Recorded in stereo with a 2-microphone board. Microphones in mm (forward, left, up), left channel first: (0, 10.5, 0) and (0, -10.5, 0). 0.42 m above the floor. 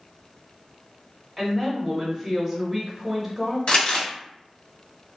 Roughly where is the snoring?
I don't hear snoring.